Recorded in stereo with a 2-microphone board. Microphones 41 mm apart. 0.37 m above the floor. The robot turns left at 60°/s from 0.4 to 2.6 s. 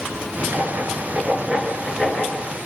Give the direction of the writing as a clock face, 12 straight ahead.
3 o'clock.